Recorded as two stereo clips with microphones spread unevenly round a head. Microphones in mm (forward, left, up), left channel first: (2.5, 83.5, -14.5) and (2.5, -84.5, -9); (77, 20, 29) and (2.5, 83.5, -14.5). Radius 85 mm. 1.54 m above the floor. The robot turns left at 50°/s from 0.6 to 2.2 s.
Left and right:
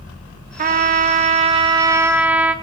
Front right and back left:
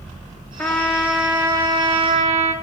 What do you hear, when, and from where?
0.6 s a trumpet: 85° right, 0.6 m; by 2.5 s 165° right, 0.6 m